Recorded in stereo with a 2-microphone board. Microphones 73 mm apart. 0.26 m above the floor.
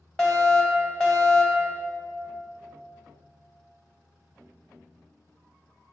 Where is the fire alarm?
10° left (ahead or behind), 2.0 m.